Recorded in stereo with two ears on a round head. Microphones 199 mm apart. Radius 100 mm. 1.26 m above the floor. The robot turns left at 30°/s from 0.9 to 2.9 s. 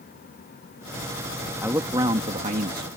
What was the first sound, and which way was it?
A man speaking, 10° right.